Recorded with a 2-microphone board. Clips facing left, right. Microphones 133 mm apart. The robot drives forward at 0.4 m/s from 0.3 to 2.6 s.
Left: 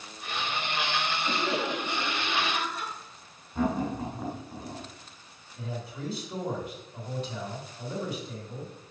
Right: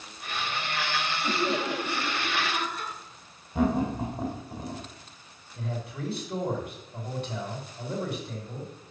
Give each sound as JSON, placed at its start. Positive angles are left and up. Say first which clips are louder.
{"t": 1.2, "sound": "laughter", "louder": "right 3 dB", "side_deg": -55, "distance_m": 7.0}
{"t": 3.5, "sound": "laughter", "louder": "right 3 dB", "side_deg": -75, "distance_m": 3.5}
{"t": 5.5, "sound": "a man speaking", "louder": "right 2 dB", "side_deg": -60, "distance_m": 4.5}